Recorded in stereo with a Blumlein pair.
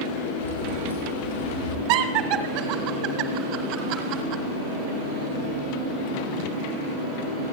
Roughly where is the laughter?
Ahead right.